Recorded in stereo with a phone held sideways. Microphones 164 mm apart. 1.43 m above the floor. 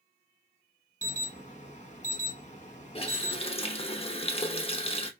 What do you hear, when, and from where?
1.0 s an alarm: 50° left (ahead or behind), 1.0 m
3.0 s a running tap: 35° left (ahead or behind), 0.8 m